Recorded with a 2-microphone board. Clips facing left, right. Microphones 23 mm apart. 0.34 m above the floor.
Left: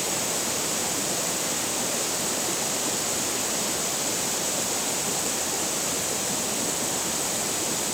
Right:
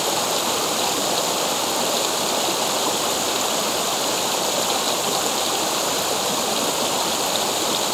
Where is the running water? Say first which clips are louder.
Right 7 dB; 60° right (ahead or behind).